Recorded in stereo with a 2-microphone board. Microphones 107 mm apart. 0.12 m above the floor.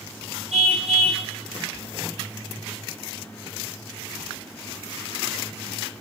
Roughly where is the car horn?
Right.